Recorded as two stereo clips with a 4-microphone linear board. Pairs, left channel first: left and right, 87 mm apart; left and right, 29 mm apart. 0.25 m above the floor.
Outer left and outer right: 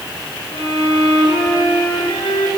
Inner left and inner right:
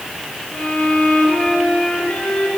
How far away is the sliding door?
No sliding door in this recording.